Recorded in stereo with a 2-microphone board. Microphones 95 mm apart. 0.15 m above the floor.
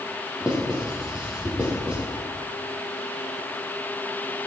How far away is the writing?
About 6 m.